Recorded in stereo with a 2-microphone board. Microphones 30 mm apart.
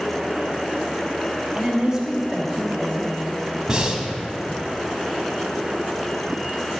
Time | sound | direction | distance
1.6 | a woman speaking | 20° right (ahead or behind) | 1.2 m
3.7 | breathing | 20° right (ahead or behind) | 0.8 m